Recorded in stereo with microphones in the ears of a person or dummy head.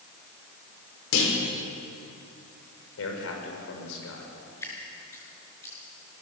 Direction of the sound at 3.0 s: 80° left.